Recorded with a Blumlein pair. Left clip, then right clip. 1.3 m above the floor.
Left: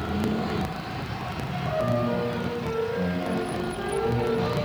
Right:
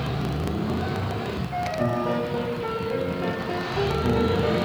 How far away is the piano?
About 2.5 m.